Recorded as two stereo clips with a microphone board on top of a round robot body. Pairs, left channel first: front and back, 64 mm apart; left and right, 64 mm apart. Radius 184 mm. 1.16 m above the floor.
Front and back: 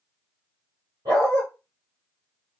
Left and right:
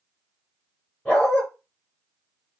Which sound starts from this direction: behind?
A dog barking, at 1.1 s.